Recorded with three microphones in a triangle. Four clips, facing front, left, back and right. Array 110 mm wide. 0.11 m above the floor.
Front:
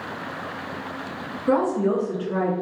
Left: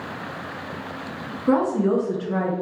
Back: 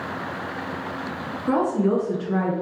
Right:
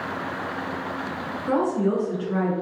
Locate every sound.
1.5 s a woman speaking: 55° left, 1.5 m; by 2.5 s 165° left, 1.5 m